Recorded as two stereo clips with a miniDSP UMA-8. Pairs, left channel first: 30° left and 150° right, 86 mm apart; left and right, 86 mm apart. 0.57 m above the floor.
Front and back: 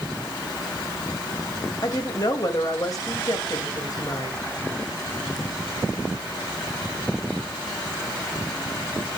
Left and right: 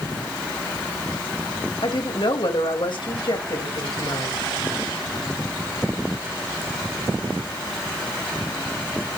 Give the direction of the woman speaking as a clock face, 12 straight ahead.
10 o'clock.